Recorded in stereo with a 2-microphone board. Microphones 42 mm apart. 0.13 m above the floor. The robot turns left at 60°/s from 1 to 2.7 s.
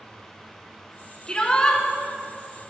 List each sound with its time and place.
1.3 s a shout: 20° left (ahead or behind), 1.8 m